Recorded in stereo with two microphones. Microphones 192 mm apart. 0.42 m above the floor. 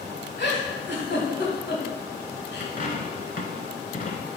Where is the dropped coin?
45° left (ahead or behind), 0.7 m.